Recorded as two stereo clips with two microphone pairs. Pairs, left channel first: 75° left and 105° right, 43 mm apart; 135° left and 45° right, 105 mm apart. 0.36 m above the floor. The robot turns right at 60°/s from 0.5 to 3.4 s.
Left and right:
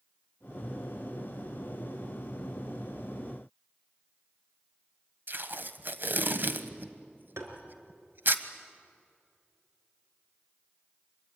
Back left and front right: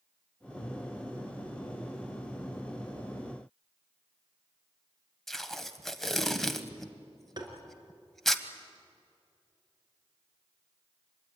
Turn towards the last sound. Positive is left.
turn(degrees=-90)